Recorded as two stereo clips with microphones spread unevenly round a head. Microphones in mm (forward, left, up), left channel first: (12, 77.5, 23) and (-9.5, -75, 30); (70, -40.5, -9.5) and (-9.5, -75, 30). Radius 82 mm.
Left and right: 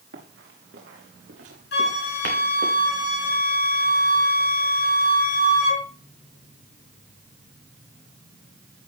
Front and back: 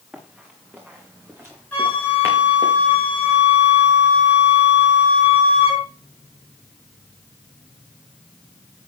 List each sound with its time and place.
0.1 s running footsteps: 80° right, 6 m; by 2.7 s 110° right, 5.5 m
1.7 s a flute: 110° left, 5 m